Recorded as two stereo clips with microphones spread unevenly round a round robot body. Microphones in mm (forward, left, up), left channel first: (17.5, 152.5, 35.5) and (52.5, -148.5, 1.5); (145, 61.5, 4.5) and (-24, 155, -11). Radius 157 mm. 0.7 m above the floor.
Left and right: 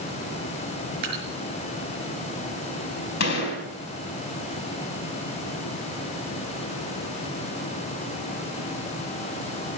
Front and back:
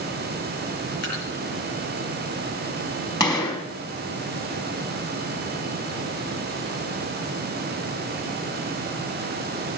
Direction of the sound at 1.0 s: 70° right.